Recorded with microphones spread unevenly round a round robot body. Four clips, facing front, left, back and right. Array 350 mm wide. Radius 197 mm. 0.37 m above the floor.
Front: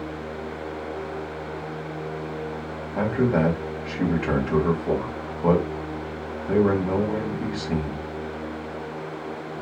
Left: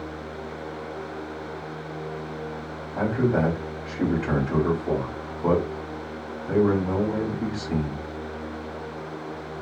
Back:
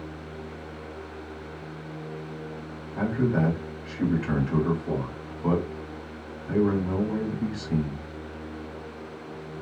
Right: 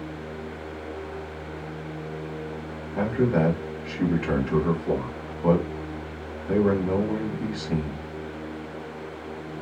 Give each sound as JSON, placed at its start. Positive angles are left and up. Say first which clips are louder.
{"t": 3.0, "sound": "a man speaking", "louder": "even, front 3 dB", "azimuth_deg": 5, "distance_m": 1.7}